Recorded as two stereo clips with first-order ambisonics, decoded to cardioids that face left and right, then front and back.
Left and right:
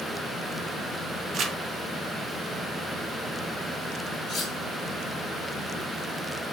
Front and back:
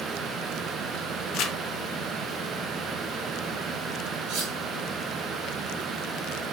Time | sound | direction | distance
1.3 | crumpling | 35° right | 0.5 m
4.3 | cutlery clinking | 160° left | 1.2 m